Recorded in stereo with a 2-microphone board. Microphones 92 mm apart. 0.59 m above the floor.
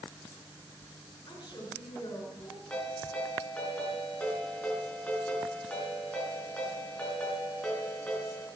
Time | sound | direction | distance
1.3 | a woman speaking | 50° left (ahead or behind) | 6.5 m
2.7 | a ringtone | 15° left (ahead or behind) | 5 m